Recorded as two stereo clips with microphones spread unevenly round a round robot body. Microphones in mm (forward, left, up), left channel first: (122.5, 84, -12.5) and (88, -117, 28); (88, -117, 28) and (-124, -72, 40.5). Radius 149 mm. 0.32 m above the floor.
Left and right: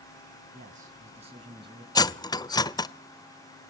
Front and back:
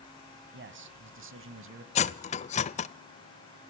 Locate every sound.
0.5 s a man speaking: 165° right, 2.5 m; by 1.9 s straight behind, 1.8 m
1.9 s cutlery clinking: 30° left, 0.5 m